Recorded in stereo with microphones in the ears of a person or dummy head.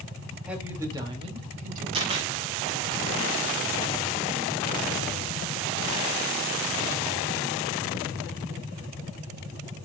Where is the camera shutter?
30° right (ahead or behind), 2 m.